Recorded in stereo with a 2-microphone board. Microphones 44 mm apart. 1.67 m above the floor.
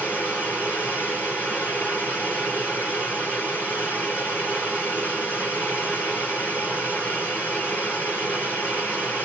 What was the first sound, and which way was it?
Running water, 40° left (ahead or behind).